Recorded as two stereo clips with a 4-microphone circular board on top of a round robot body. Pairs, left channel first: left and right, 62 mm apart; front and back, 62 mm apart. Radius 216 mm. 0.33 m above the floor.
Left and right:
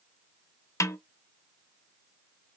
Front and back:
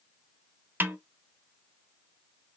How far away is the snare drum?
About 0.9 m.